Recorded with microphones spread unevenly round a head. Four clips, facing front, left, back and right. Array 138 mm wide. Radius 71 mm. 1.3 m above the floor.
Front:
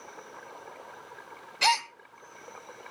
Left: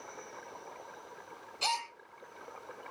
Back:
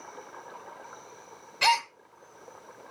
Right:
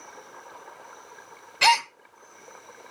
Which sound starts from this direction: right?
A gasp, at 1.6 s.